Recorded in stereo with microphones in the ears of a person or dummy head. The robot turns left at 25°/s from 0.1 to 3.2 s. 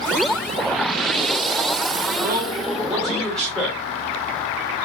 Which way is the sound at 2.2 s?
20° right (ahead or behind).